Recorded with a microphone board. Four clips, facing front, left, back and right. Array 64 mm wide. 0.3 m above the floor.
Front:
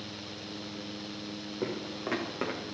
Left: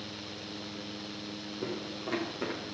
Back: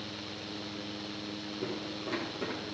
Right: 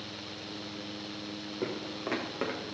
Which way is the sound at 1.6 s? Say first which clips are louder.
Right 2 dB, front 3 dB; 45° right.